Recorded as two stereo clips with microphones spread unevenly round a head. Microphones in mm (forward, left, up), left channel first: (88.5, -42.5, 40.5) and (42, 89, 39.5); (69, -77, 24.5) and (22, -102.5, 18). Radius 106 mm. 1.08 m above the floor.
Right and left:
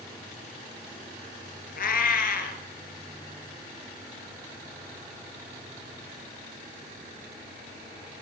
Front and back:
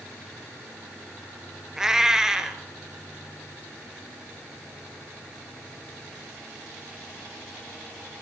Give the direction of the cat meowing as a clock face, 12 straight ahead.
2 o'clock.